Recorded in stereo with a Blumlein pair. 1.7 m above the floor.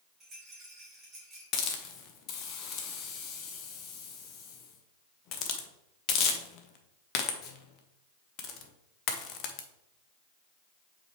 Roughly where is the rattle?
Ahead.